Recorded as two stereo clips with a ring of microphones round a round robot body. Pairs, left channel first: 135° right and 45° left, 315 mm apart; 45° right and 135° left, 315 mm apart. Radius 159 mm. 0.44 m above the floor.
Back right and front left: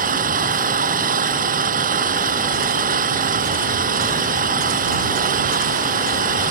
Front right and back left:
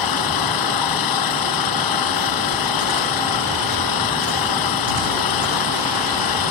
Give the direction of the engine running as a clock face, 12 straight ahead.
1 o'clock.